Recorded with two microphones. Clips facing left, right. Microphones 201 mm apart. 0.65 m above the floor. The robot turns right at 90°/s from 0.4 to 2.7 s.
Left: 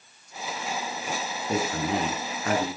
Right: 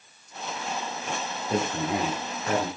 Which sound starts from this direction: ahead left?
A man speaking, at 1.5 s.